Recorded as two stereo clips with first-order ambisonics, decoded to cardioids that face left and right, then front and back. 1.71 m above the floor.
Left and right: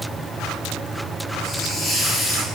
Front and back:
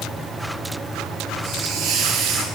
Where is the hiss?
155° left, 4 m.